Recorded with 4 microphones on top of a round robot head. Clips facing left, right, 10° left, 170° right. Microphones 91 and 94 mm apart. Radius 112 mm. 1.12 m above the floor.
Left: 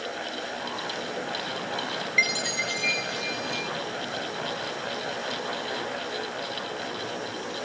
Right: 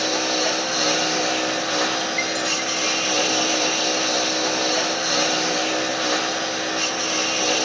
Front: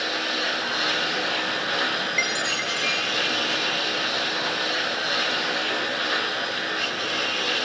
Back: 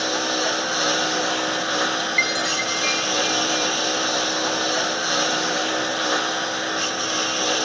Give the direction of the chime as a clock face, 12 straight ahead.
10 o'clock.